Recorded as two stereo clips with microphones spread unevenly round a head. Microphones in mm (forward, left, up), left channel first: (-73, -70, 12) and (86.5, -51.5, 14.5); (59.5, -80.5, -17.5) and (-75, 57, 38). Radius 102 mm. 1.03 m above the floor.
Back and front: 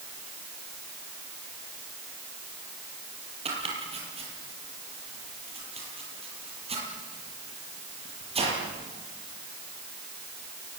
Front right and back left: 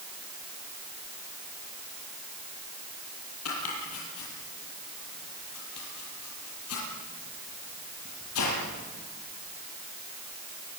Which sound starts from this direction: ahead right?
Chopping, at 3.5 s.